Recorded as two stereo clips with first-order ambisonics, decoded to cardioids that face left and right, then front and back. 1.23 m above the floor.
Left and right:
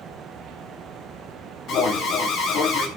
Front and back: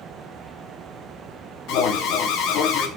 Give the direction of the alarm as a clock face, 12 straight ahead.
11 o'clock.